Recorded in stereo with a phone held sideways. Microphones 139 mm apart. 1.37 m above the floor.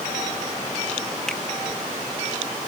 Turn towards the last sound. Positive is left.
turn(degrees=5)  # may be behind; listen again after turning